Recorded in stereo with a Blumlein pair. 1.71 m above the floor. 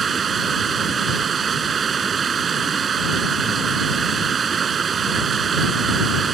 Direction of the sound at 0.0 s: 20° right.